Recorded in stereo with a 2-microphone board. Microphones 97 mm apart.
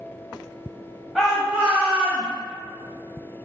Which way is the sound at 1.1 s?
Centre (ahead or behind).